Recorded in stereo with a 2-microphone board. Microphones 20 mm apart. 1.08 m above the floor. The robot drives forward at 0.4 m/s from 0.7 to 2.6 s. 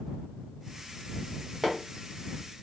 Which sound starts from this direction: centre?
Hammering, at 1.6 s.